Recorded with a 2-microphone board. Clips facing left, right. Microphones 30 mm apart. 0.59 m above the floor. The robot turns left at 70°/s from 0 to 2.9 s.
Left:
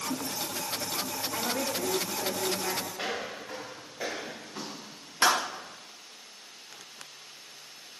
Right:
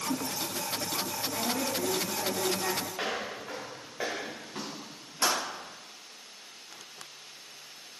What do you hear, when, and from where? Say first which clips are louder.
1.3 s a woman speaking: even; 30° left, 5 m; by 2.8 s 75° right, 5 m
2.9 s footsteps: right 1 dB; 55° right (ahead or behind), 5 m; by 5.8 s 10° right (ahead or behind), 3 m
5.2 s a clap: left 4 dB; 40° left (ahead or behind), 0.9 m